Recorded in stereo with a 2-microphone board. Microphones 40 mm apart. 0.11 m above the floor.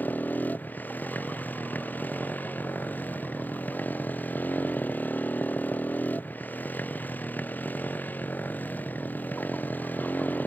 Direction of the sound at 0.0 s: 50° left (ahead or behind).